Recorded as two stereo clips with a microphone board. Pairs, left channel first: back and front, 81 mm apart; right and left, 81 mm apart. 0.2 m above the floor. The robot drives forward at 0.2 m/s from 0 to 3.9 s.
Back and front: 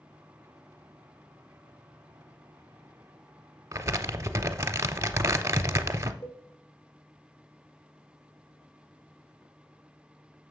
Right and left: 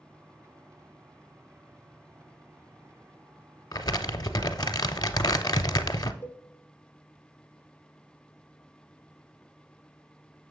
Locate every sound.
3.7 s crumpling: 50° right, 0.5 m; by 6.1 s 55° right, 0.5 m
6.2 s a cowbell: 155° right, 1.7 m